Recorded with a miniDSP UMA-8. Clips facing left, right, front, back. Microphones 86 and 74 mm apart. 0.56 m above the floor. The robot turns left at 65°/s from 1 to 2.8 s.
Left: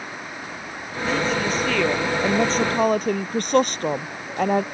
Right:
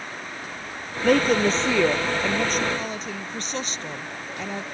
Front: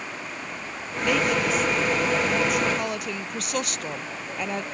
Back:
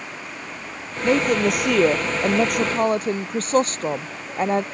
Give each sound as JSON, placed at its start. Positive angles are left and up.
{"t": 1.0, "sound": "a woman speaking", "azimuth_deg": -120}